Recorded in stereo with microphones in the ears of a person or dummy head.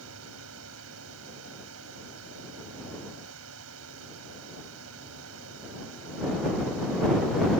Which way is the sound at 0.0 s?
90° right.